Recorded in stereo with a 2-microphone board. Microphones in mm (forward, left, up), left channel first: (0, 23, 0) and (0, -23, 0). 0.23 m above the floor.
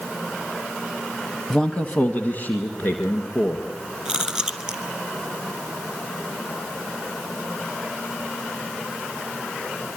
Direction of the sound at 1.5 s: 10° left (ahead or behind).